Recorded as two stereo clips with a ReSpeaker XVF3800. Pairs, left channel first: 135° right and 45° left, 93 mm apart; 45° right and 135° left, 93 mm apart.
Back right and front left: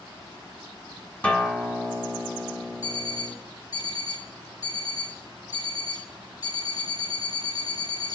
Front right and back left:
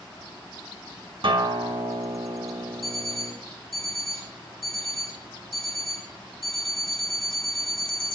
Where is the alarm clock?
Straight behind, 2.5 m.